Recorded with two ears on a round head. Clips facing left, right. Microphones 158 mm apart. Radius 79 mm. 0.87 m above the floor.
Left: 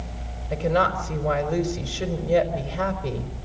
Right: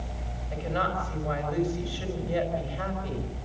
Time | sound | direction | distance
0.5 | a woman speaking | 65° left (ahead or behind) | 4.5 m